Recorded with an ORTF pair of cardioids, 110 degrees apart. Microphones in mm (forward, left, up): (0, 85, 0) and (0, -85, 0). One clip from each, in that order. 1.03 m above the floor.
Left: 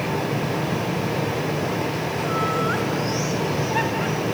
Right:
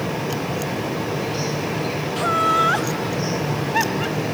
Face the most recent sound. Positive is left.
turn(degrees=-25)